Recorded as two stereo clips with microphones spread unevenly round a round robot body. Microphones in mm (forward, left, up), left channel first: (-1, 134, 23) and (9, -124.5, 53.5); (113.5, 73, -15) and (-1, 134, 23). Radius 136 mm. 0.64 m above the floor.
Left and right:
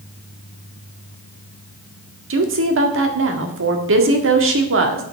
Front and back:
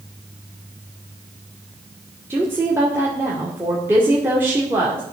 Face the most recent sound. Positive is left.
turn(degrees=-120)